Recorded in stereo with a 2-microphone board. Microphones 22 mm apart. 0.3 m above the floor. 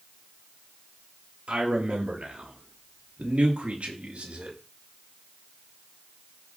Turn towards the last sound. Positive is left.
turn(degrees=-75)  # may be behind; listen again after turning